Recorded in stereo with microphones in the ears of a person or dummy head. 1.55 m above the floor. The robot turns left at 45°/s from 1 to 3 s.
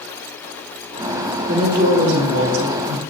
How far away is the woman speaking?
About 2 m.